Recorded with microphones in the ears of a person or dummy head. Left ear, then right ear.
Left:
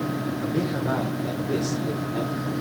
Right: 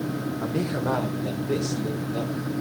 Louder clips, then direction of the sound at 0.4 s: Even; 25° right (ahead or behind).